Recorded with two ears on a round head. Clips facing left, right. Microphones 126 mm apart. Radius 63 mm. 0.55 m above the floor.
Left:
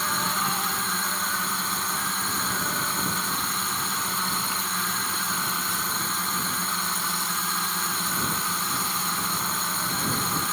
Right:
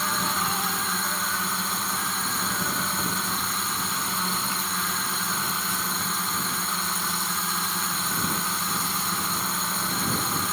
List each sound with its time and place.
0.0 s a drone: centre (ahead or behind)